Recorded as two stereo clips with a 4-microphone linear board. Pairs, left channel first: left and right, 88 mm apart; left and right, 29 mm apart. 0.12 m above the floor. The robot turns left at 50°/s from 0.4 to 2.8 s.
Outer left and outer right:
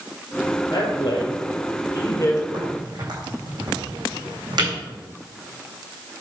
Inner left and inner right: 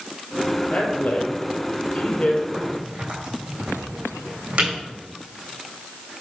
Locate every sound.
0.7 s a man speaking: 45° left (ahead or behind), 3 m; by 2.4 s 30° left (ahead or behind), 3 m
2.5 s a crack: 65° right (ahead or behind), 4 m; by 4.7 s 55° right (ahead or behind), 4 m